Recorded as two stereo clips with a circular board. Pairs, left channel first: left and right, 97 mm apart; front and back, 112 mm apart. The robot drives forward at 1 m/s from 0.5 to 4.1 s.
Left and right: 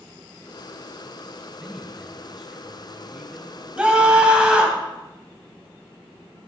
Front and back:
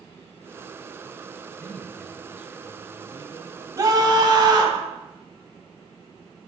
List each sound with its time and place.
1.6 s a man speaking: 20° right, 1.4 m; by 3.7 s 175° right, 2 m
3.8 s a scream: 160° right, 1.8 m; by 4.8 s 165° right, 2 m